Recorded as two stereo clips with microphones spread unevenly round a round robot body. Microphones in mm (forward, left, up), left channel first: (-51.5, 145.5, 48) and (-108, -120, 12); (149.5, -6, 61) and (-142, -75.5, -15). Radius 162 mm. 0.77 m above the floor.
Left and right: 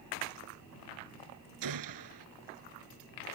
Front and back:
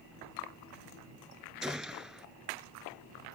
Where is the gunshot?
75° right.